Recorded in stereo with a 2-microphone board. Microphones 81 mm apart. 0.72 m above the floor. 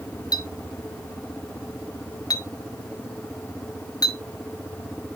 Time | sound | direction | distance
0.3 | a clink | 50° left (ahead or behind) | 0.9 m